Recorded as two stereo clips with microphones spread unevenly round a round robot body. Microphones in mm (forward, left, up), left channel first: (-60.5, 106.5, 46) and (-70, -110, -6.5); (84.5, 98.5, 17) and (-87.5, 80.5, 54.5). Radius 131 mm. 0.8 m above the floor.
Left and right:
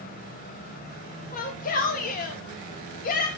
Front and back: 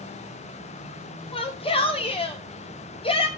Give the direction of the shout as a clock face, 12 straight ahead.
11 o'clock.